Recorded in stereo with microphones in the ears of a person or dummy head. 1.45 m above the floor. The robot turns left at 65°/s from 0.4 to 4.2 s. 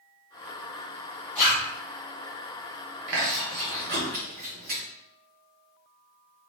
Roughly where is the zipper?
Centre.